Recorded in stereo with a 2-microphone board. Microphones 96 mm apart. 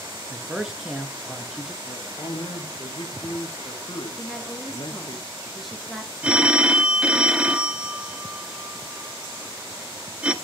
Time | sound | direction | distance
0.3 | a man speaking | 5° right (ahead or behind) | 1.4 m
1.8 | a man speaking | 45° left (ahead or behind) | 2 m
4.2 | a woman speaking | centre (ahead or behind) | 2 m
6.2 | a phone ringing | 10° right (ahead or behind) | 0.8 m